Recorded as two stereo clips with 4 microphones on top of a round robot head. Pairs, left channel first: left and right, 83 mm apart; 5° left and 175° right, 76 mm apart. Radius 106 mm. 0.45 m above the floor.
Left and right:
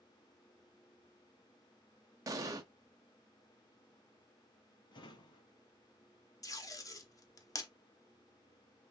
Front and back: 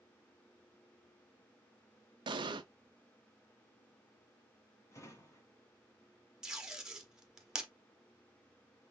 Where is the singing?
I don't hear singing.